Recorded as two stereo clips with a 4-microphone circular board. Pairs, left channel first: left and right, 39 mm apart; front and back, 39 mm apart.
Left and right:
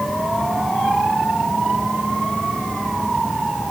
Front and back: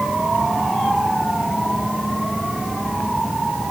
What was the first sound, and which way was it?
Only background noise.